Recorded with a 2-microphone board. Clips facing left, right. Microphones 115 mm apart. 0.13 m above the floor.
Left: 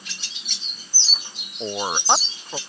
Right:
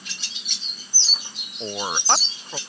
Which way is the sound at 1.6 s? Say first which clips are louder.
Left 2 dB; 15° left (ahead or behind).